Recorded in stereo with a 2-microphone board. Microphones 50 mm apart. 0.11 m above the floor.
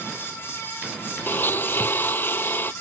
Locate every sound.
1.3 s a blender: 45° left (ahead or behind)